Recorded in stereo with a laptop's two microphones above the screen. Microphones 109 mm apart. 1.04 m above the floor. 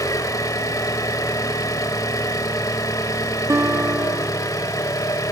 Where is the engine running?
30° left (ahead or behind), 1.0 m.